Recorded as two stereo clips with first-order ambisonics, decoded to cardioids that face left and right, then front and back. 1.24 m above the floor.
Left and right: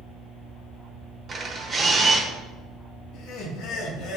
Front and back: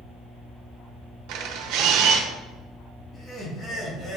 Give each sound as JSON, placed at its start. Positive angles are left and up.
{"t": 1.3, "sound": "a camera shutter", "azimuth_deg": -160, "distance_m": 1.2}
{"t": 3.1, "sound": "laughter", "azimuth_deg": 65, "distance_m": 2.5}